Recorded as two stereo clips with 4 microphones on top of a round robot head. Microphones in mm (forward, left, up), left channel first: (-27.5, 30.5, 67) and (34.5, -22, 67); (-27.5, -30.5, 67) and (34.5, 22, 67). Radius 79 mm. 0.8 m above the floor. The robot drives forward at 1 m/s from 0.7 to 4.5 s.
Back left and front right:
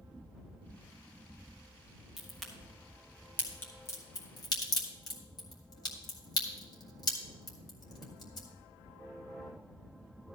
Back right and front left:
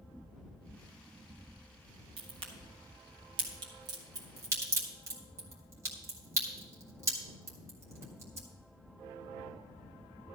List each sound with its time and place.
2.2 s a crack: 50° left, 3 m; by 8.5 s 100° left, 2.5 m